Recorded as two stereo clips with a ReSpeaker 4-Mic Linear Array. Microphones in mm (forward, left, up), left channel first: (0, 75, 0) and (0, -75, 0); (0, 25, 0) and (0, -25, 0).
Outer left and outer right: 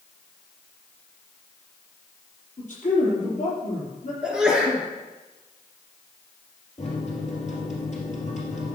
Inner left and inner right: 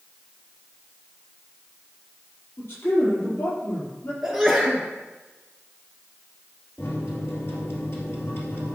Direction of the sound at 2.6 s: 55° left (ahead or behind).